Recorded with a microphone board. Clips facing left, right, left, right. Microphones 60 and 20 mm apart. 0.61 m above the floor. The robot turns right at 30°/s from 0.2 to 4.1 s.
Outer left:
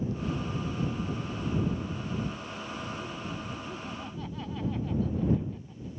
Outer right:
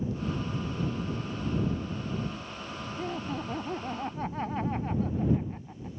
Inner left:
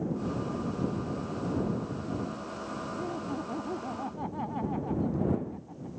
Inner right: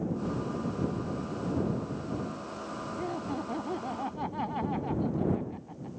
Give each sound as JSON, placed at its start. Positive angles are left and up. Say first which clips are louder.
{"t": 3.0, "sound": "laughter", "louder": "outer right 4 dB, inner right 2 dB", "azimuth_deg": -80}